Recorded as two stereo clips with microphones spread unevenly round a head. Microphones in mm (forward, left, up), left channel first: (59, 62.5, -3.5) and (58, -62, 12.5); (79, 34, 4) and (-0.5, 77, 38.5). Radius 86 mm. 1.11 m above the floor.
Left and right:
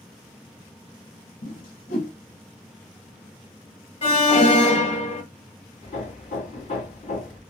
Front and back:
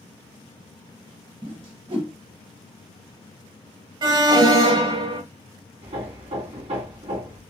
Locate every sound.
1.4 s a whoosh: 130° left, 2.5 m
4.0 s an alarm: 110° left, 1.8 m
5.8 s hammering: 140° left, 1.7 m